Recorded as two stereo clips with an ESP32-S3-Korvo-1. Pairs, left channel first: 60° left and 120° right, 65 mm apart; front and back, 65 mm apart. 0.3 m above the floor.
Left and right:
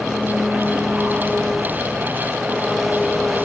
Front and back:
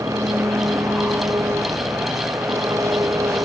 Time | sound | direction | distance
0.0 | an engine running | 150° left | ?